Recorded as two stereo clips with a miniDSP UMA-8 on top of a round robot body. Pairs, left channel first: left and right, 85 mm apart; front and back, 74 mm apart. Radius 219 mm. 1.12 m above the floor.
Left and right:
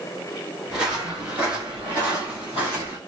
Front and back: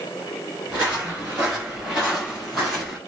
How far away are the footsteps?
About 1.3 m.